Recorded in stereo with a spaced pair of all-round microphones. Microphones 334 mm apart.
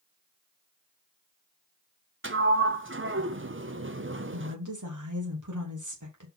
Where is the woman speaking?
60° right (ahead or behind), 3 m.